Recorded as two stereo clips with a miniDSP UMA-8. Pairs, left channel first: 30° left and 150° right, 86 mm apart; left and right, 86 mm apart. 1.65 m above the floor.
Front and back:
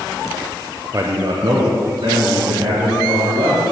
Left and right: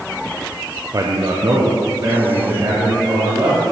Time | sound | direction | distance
0.9 | a man speaking | 115° right | 0.5 m